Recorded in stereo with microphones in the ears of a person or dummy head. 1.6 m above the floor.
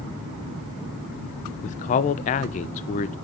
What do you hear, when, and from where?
1.6 s a man speaking: 40° left (ahead or behind), 0.8 m